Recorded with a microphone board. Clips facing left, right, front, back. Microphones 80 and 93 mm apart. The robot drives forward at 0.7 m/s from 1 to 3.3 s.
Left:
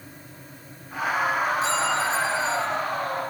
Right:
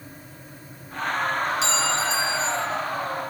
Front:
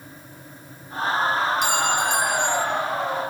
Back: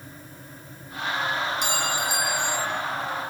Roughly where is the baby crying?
I don't hear a baby crying.